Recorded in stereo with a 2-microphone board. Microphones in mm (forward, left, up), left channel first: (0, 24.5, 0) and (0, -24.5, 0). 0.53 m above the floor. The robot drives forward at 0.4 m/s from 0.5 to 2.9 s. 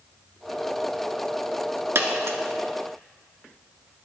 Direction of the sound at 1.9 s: 60° right (ahead or behind).